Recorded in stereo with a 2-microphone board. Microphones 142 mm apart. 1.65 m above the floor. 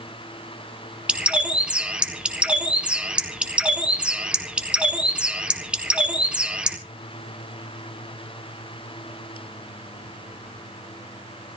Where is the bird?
5° right (ahead or behind), 1.5 m.